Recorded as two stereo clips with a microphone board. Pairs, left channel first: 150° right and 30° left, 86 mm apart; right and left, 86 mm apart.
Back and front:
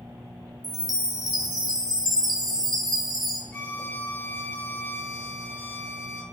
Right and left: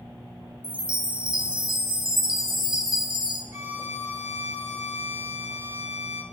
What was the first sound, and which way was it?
A chime, 65° left.